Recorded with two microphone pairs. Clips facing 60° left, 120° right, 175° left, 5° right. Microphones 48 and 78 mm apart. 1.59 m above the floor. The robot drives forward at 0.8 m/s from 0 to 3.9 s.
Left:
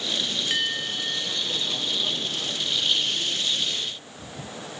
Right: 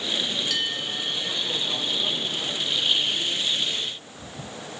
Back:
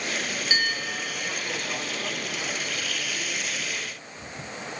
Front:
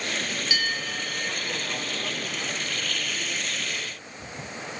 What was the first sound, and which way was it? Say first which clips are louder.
A bell: left 1 dB, back 4 dB; 120° left.